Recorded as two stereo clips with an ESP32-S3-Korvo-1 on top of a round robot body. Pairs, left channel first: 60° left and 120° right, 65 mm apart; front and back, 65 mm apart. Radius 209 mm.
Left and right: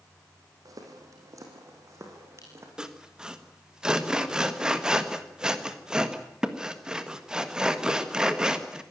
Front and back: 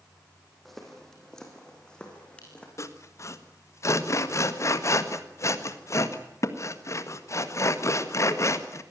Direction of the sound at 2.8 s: 40° right.